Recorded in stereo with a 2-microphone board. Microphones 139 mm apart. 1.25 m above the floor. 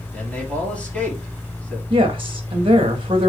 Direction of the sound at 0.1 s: 10° left (ahead or behind).